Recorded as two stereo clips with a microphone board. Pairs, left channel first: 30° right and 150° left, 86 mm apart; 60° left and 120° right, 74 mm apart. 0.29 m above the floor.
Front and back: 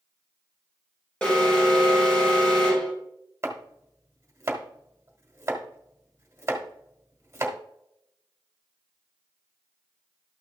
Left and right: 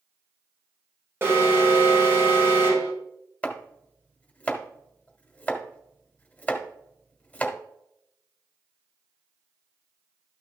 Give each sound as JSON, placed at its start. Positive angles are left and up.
{"t": 1.2, "sound": "an alarm", "azimuth_deg": -100, "distance_m": 2.5}
{"t": 3.4, "sound": "chopping", "azimuth_deg": 120, "distance_m": 1.2}